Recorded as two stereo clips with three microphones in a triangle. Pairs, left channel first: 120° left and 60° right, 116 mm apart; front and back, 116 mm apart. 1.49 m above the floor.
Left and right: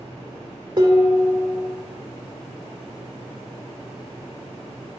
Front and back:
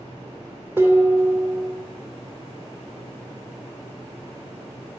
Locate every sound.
0.8 s dishes clattering: 110° right, 3 m